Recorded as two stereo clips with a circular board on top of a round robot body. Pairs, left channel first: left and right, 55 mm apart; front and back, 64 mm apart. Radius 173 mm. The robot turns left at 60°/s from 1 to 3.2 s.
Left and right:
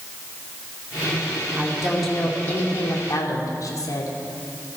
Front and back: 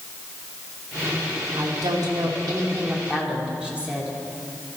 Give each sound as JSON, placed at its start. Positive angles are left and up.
{"t": 1.6, "sound": "a woman speaking", "azimuth_deg": -155, "distance_m": 2.5}